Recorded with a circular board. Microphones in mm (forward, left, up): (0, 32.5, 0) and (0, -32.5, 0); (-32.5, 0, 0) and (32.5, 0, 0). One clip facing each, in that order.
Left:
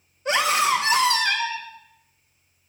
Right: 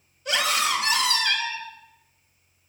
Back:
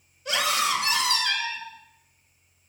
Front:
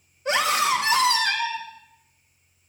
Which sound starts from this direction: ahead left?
A scream, at 0.2 s.